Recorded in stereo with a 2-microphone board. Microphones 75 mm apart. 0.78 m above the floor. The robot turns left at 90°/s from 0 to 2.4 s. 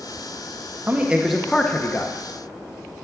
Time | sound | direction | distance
0.9 | a man speaking | 135° right | 0.8 m